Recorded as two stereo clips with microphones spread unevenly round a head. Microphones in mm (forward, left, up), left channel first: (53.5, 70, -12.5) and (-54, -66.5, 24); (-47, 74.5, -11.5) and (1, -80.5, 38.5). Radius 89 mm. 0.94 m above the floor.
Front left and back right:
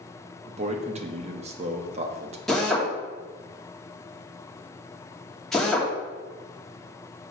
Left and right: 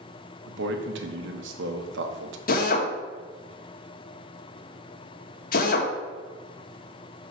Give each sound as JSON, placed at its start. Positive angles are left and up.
{"t": 0.5, "sound": "a man speaking", "azimuth_deg": -70, "distance_m": 1.0}
{"t": 2.5, "sound": "a drill", "azimuth_deg": 140, "distance_m": 1.5}